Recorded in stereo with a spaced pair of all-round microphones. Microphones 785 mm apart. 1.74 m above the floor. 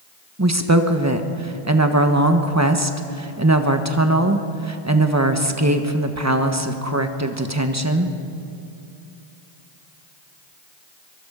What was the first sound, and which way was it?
A woman speaking, 20° right (ahead or behind).